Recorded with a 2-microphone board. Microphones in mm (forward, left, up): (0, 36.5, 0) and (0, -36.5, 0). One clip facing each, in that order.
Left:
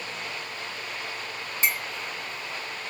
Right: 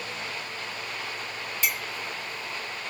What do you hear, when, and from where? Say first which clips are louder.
1.6 s a clink: left 3 dB; 35° left (ahead or behind), 0.8 m